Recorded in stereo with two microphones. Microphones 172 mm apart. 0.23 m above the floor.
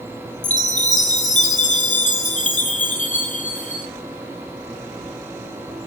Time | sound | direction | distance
0.4 | a chime | 45° left (ahead or behind) | 0.8 m